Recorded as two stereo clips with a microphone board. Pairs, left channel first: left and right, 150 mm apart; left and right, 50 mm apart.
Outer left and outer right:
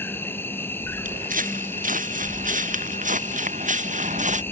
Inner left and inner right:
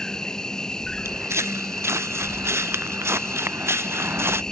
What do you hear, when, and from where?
0.0 s an insect: 15° left (ahead or behind)
1.1 s footsteps: 65° right (ahead or behind); by 4.4 s 55° right (ahead or behind)